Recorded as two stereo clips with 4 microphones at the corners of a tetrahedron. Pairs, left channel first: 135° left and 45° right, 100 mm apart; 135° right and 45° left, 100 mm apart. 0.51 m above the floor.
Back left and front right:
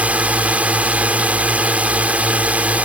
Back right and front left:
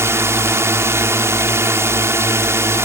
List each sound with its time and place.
0.0 s a drone: 15° left